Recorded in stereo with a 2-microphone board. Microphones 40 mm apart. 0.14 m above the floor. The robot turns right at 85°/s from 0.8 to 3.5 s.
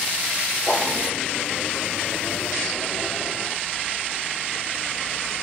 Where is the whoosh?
25° left (ahead or behind), 5.5 m; by 0.9 s 15° left (ahead or behind), 5.5 m.